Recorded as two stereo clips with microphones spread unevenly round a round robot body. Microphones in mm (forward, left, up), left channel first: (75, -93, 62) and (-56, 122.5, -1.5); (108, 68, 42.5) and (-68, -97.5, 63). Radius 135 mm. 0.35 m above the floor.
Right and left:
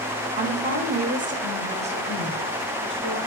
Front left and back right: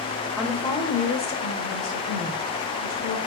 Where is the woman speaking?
130° left, 1.1 m; by 3.2 s 55° left, 3.5 m.